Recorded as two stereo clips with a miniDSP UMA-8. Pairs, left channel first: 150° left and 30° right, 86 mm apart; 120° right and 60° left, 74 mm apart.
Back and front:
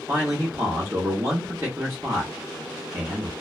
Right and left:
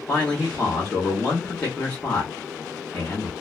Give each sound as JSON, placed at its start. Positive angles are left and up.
{"t": 0.1, "sound": "a man speaking", "azimuth_deg": -60, "distance_m": 1.1}